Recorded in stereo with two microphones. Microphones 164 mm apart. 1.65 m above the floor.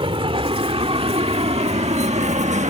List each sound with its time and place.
0.0 s a vehicle: 35° right (ahead or behind); by 2.7 s 45° right (ahead or behind)